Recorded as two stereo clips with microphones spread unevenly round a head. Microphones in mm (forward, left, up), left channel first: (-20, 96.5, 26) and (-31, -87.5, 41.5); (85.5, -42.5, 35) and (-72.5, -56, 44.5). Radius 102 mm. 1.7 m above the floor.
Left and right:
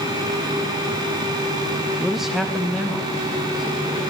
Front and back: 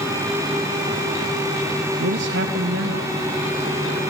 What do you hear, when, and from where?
2.0 s a man speaking: straight behind, 0.9 m